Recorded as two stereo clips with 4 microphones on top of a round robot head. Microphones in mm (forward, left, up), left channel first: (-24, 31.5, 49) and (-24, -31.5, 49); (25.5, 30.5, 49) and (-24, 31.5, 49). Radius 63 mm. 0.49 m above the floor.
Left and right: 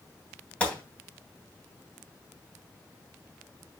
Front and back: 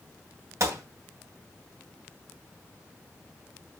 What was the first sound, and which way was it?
A gunshot, 160° left.